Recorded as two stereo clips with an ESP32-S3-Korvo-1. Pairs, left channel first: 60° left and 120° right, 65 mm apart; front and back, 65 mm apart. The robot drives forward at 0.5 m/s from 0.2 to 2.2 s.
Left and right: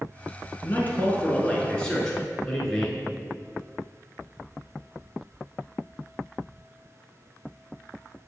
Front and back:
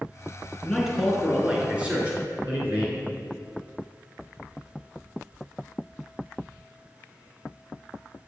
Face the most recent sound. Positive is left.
turn(degrees=135)